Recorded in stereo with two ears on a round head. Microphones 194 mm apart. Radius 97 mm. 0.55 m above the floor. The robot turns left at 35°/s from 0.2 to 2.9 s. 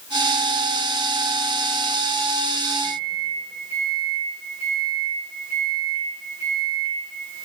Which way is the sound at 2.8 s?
45° right (ahead or behind).